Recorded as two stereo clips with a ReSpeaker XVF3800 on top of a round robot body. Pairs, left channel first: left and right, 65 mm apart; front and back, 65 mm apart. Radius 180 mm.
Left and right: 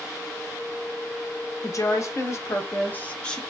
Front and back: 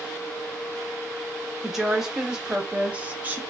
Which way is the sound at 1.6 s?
95° left.